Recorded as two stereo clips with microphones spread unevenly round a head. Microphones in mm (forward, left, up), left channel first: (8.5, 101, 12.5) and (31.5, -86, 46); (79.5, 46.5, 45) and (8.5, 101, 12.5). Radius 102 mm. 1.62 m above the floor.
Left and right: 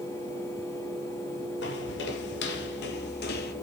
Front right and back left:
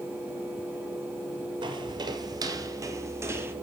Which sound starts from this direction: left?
Footsteps, at 1.6 s.